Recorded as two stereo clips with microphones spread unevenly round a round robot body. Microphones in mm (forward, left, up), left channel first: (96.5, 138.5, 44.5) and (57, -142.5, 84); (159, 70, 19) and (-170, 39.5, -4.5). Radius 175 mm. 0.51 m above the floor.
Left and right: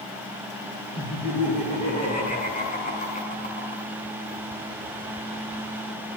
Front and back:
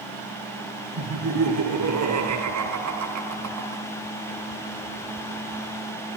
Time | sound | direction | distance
1.0 | laughter | 150° left | 6 m